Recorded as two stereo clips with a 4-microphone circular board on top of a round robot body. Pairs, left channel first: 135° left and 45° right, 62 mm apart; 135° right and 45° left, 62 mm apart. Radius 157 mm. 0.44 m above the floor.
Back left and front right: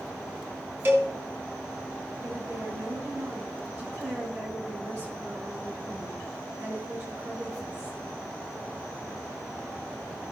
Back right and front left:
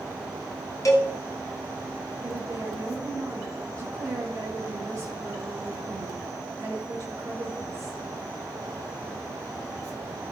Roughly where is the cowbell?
Right.